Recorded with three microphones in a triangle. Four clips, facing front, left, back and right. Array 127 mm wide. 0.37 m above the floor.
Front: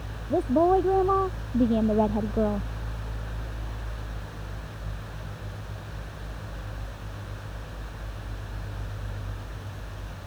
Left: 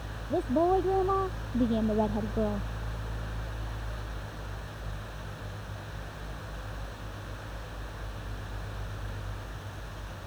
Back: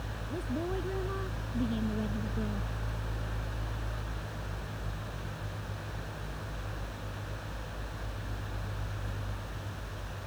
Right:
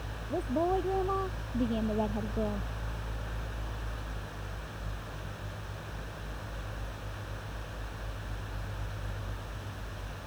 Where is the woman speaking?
20° left; by 2.7 s 15° left.